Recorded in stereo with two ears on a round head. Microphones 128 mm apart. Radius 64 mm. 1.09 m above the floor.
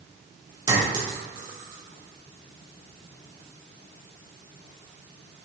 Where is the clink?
30° right (ahead or behind), 2.5 m.